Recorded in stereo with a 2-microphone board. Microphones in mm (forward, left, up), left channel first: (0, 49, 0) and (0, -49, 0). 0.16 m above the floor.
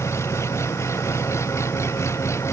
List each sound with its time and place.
0.0 s an engine running: 30° left (ahead or behind)